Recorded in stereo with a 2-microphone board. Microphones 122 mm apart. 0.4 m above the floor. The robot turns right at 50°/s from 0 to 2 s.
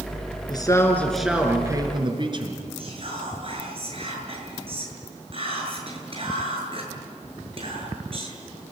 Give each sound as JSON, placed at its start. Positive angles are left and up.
{"t": 0.5, "sound": "a man speaking", "azimuth_deg": 145, "distance_m": 5.5}
{"t": 2.8, "sound": "whispering", "side_deg": -45, "distance_m": 7.5}